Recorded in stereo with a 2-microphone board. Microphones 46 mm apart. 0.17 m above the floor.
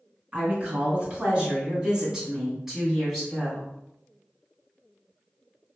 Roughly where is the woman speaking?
Right.